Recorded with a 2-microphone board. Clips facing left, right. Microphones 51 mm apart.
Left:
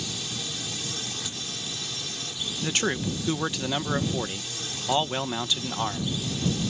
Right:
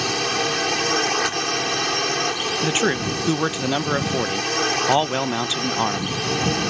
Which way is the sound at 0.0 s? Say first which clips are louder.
Right 13 dB; 60° right (ahead or behind).